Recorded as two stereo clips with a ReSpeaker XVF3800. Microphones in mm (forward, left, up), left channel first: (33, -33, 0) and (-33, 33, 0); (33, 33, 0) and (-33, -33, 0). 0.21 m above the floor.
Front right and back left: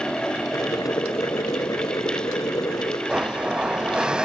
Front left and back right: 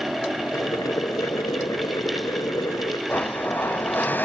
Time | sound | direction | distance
0.5 | boiling | straight ahead | 1.3 m
3.1 | a blender | 70° left | 1.1 m